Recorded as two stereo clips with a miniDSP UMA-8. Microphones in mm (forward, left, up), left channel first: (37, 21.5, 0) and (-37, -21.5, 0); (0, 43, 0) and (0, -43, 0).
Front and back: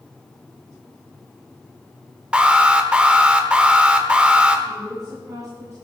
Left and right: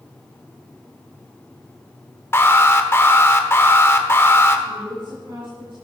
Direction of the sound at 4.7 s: 105° right.